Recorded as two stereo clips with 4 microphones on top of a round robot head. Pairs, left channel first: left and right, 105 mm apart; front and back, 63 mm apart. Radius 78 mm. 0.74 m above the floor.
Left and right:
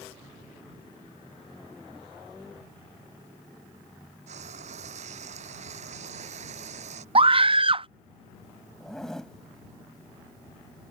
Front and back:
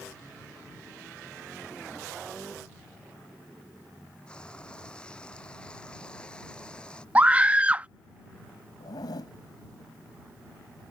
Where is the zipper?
5° left.